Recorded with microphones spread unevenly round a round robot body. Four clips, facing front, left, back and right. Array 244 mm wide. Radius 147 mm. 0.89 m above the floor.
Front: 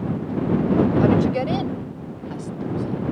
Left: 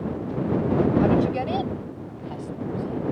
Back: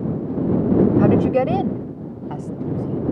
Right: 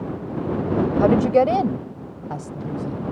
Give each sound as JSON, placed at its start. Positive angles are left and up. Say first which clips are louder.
{"t": 1.0, "sound": "a woman speaking", "louder": "right 5 dB, back 3 dB", "azimuth_deg": -135}